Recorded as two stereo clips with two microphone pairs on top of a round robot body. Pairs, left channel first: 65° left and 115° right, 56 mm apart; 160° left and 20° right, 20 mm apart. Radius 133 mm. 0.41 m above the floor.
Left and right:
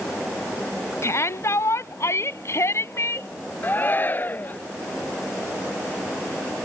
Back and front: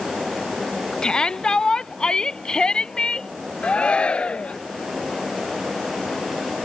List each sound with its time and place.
1.0 s a shout: 110° left
3.6 s a shout: 125° left